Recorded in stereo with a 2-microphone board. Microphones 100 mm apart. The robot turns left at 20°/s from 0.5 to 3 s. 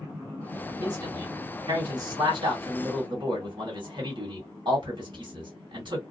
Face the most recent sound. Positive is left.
turn(degrees=-50)  # may be behind; listen again after turning